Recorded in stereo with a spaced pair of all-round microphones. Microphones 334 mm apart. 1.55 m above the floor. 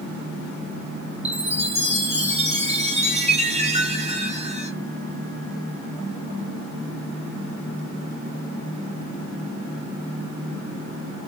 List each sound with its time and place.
1.2 s a chime: 20° right (ahead or behind), 1.3 m